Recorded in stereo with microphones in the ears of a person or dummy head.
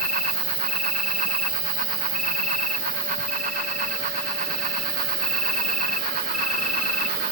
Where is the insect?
Centre (ahead or behind), 2 m.